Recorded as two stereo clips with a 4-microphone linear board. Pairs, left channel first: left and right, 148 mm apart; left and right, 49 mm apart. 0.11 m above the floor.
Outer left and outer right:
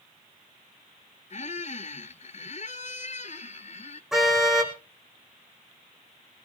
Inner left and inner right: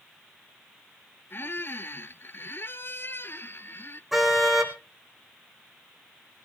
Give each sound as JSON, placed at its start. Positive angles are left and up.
{"t": 1.3, "sound": "a squeak", "side_deg": 55, "distance_m": 0.5}
{"t": 4.1, "sound": "a car horn", "side_deg": 0, "distance_m": 3.0}